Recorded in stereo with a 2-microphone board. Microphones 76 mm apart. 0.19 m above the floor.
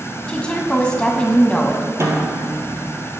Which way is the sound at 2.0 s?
40° right (ahead or behind).